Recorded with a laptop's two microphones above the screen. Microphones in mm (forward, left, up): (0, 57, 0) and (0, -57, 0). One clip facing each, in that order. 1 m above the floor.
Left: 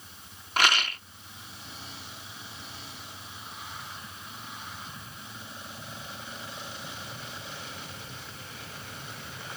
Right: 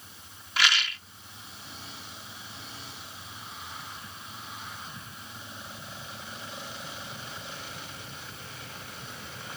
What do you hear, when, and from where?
0.6 s a rattle: 45° left (ahead or behind)